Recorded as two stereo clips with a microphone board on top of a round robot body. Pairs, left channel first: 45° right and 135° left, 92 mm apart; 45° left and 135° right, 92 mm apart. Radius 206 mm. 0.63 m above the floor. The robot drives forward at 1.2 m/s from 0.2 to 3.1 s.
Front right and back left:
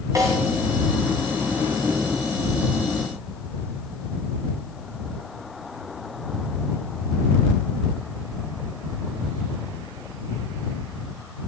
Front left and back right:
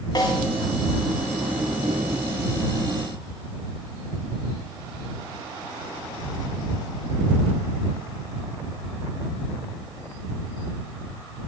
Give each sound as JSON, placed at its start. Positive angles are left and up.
{"t": 0.1, "sound": "a snare drum", "azimuth_deg": 85, "distance_m": 8.0}